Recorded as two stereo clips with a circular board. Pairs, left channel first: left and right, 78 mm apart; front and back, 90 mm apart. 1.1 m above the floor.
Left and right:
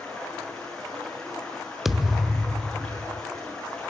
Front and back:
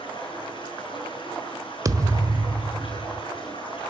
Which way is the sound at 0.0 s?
10° left.